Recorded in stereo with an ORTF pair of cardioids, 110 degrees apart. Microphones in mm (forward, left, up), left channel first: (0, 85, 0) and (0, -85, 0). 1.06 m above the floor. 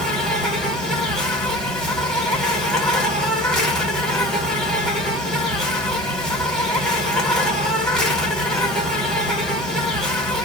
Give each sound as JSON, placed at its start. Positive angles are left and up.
{"t": 0.0, "sound": "an insect", "azimuth_deg": 5, "distance_m": 1.2}